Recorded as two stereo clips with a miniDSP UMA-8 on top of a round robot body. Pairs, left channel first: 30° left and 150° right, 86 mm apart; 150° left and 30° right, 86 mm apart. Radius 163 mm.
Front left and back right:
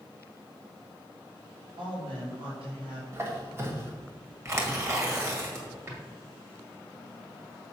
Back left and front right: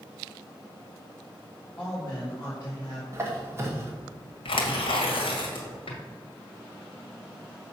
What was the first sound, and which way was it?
A woman speaking, 135° right.